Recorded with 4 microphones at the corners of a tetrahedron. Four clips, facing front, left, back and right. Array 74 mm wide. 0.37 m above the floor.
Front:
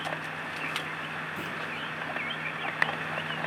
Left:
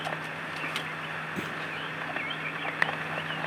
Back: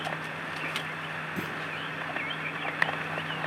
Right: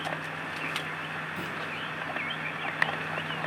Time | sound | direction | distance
1.4 | a clunk | 130° left | 6.5 m